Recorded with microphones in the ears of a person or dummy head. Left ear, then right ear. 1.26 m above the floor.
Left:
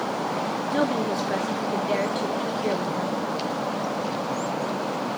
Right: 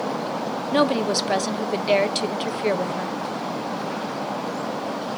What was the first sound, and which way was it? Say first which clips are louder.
A woman speaking: right 6 dB; 40° right (ahead or behind).